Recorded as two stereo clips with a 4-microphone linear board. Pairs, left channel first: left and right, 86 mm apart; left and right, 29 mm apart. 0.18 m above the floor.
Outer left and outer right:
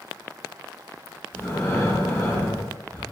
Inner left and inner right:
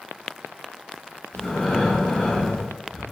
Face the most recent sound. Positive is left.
turn(degrees=25)  # may be behind; listen again after turning